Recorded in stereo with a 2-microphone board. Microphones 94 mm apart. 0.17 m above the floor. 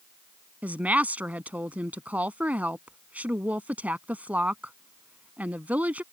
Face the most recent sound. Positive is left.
turn(degrees=-15)  # may be behind; listen again after turning